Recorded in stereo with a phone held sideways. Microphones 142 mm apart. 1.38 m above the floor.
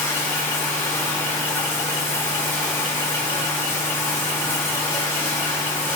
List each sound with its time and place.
0.0 s running water: 15° left (ahead or behind), 0.9 m